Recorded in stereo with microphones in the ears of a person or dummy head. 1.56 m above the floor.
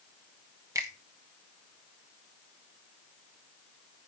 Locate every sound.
0.8 s a finger snap: 10° right (ahead or behind), 1.1 m